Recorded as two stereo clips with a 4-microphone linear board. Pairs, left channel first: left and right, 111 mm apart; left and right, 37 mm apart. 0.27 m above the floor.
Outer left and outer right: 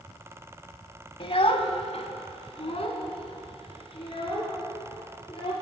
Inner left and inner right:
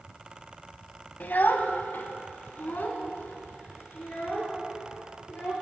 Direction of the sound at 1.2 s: 50° left (ahead or behind).